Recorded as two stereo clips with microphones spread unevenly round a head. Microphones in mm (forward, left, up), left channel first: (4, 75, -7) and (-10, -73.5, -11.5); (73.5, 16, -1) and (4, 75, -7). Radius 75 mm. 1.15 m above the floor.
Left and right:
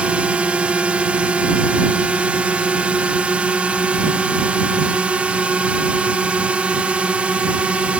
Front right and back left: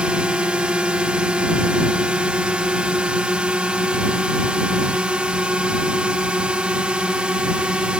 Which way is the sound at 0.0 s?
165° right.